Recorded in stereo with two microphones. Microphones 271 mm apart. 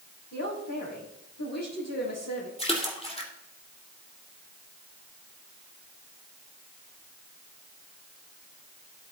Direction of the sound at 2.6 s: 20° left (ahead or behind).